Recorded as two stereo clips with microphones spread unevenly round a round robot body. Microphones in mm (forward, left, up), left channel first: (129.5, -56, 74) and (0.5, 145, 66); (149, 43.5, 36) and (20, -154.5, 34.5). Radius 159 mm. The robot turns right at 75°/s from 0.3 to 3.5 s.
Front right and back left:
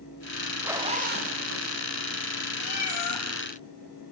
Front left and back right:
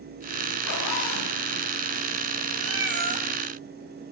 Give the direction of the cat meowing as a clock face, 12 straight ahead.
3 o'clock.